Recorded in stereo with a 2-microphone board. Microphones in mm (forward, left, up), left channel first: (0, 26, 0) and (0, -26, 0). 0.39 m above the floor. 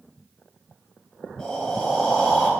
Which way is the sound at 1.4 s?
15° left (ahead or behind).